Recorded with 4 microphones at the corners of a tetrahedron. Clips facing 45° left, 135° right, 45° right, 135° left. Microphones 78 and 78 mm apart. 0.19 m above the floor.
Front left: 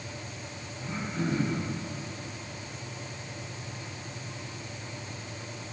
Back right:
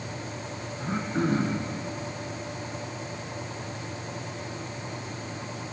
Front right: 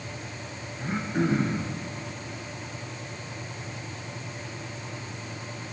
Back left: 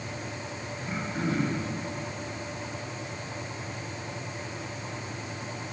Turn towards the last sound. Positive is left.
turn(degrees=-100)